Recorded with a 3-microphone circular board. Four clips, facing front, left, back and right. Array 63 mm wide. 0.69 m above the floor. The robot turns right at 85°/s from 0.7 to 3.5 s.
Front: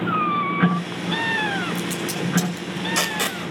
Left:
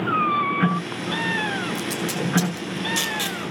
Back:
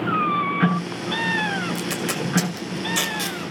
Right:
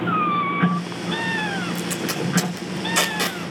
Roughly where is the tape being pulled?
Behind.